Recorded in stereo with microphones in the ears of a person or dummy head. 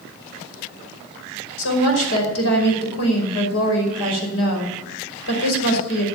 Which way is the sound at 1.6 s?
85° left.